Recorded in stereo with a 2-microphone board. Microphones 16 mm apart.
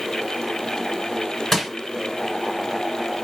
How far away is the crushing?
About 2 m.